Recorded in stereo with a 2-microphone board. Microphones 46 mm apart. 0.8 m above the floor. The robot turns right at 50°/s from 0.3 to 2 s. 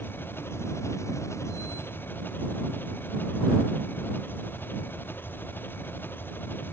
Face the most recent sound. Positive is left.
turn(degrees=135)